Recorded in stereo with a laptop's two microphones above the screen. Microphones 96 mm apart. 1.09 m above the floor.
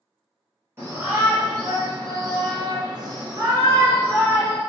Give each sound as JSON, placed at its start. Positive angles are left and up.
{"t": 0.8, "sound": "a shout", "side_deg": -25, "distance_m": 1.2}